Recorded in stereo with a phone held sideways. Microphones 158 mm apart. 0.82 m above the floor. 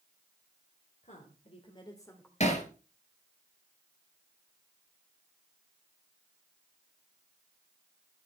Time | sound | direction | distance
1.0 | a woman speaking | 50° left (ahead or behind) | 3 m
2.4 | hammering | 45° left (ahead or behind) | 4 m